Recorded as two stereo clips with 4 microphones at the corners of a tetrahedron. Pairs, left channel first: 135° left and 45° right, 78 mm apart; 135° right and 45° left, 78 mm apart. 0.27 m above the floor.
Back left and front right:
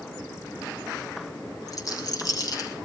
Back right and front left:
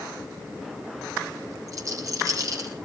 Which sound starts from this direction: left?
A rattle, at 1.7 s.